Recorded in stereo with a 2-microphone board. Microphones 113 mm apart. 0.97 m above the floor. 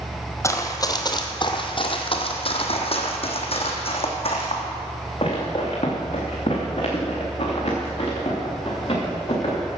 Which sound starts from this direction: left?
Running footsteps, at 0.4 s.